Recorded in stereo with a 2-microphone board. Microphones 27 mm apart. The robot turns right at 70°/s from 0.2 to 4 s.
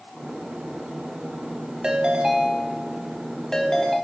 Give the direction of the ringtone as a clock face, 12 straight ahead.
3 o'clock.